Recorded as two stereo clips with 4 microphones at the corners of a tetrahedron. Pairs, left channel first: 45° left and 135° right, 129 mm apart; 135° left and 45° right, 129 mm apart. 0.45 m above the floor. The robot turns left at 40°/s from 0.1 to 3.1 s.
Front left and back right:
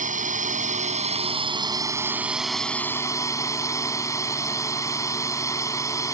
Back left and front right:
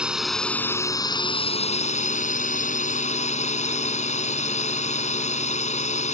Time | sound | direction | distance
0.0 | a drone | 130° right | ?